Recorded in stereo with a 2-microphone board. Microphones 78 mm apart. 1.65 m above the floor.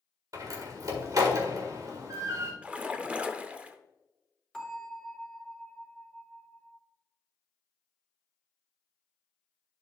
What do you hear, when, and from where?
0.3 s a door slam: 50° right (ahead or behind), 1.7 m
2.6 s a splash: 15° right (ahead or behind), 0.6 m
4.5 s a bell: 5° left (ahead or behind), 3.5 m